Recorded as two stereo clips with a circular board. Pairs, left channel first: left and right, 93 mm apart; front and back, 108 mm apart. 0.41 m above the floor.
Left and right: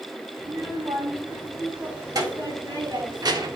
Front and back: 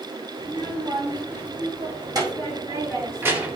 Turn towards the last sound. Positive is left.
turn(degrees=-105)